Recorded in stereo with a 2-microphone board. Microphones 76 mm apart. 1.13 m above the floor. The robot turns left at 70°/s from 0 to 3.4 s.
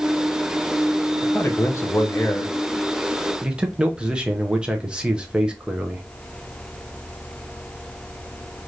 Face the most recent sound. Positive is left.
turn(degrees=-20)